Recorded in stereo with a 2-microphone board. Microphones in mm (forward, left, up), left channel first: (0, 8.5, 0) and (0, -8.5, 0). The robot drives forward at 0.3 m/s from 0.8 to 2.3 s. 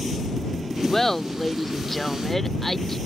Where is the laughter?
20° left (ahead or behind); by 3.0 s 15° left (ahead or behind).